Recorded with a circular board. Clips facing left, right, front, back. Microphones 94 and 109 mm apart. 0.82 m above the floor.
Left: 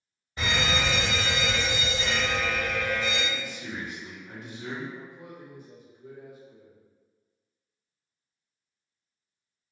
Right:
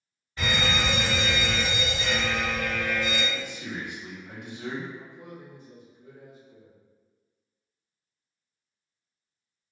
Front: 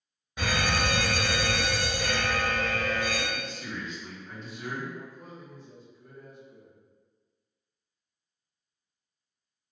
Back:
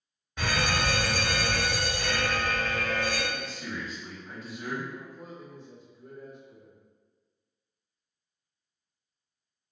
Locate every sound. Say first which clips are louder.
0.4 s a fire alarm: even, even; 60° left, 1.3 m
3.3 s a man speaking: right 1 dB, even; 95° right, 0.9 m
5.0 s a man speaking: even, even; 140° left, 0.9 m